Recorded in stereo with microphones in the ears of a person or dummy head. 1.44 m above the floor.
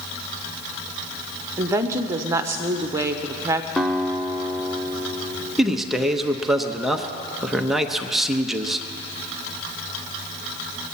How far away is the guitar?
About 0.6 m.